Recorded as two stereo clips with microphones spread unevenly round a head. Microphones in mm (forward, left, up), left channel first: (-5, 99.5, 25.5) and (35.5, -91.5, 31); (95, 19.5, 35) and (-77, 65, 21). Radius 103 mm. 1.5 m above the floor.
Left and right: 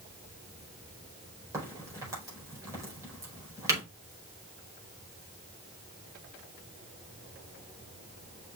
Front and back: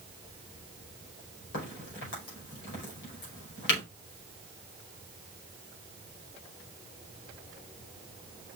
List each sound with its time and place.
1.5 s a crack: 5° right, 5 m